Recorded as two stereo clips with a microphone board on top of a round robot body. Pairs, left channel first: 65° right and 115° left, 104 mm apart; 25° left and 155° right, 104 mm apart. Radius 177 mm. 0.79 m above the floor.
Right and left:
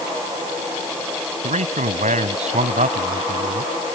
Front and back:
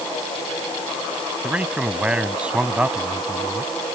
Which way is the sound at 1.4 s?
125° left.